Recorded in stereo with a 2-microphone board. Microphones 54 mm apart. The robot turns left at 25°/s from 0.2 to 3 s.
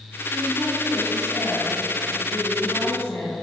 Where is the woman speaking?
145° left, 2.5 m; by 3.4 s 80° left, 2.5 m.